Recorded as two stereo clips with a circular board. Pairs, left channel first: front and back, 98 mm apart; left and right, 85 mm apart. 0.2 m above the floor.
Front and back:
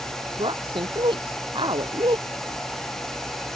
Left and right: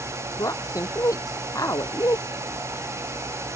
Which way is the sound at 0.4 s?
140° left.